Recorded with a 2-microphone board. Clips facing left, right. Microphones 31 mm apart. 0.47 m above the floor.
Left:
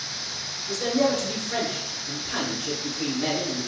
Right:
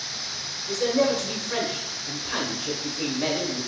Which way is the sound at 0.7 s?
20° right (ahead or behind).